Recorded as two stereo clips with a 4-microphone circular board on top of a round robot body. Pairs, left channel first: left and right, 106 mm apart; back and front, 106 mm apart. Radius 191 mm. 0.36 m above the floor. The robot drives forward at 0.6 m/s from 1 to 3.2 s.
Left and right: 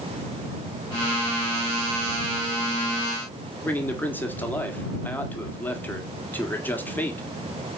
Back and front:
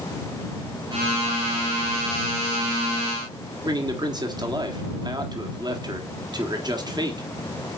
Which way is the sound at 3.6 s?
25° left.